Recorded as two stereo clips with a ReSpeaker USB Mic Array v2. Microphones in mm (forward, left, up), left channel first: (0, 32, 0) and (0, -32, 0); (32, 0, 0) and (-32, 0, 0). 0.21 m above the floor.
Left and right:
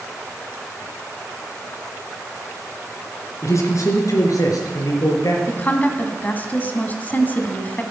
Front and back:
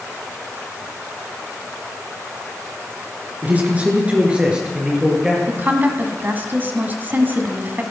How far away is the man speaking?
About 2.5 m.